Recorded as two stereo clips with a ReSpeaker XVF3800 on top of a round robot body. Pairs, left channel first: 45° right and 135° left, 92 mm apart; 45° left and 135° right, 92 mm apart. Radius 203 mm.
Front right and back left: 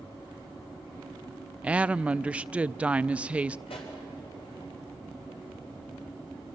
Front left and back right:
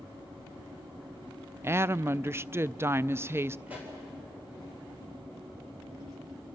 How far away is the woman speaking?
About 0.5 m.